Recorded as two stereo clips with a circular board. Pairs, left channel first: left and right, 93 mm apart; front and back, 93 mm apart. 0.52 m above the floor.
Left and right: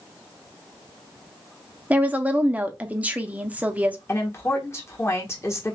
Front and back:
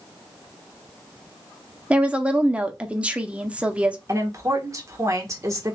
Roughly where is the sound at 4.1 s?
Behind left.